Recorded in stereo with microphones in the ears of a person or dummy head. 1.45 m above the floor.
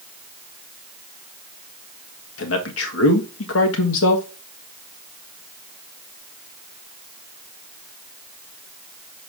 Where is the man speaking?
80° left, 1.7 m.